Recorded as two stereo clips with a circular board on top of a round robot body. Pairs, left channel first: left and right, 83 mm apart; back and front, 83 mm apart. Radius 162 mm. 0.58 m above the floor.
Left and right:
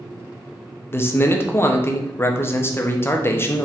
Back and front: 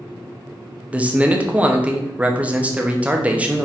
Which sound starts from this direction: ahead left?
A man speaking, at 0.9 s.